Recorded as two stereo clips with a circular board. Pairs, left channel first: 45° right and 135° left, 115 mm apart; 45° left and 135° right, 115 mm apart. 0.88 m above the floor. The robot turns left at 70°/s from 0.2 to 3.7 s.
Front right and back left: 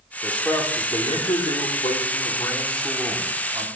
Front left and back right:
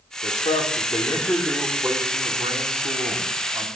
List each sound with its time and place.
0.2 s a man speaking: 50° left, 2 m; by 3.7 s 170° left, 2 m